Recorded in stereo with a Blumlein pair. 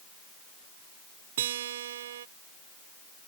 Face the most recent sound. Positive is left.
turn(degrees=-60)